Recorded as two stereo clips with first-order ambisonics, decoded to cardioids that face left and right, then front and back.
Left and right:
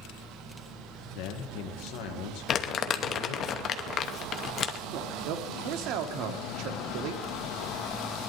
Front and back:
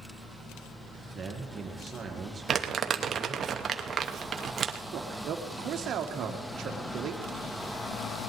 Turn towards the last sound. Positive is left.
turn(degrees=-125)